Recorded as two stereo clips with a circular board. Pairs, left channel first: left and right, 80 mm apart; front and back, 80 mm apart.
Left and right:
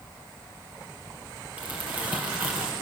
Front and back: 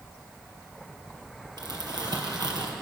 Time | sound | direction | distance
1.6 | crumpling | 160° right | 3.5 m